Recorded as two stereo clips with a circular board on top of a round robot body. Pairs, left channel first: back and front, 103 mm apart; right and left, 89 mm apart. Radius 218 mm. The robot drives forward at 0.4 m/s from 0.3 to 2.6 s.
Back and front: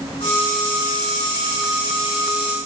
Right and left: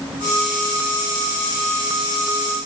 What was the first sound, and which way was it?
Only background noise.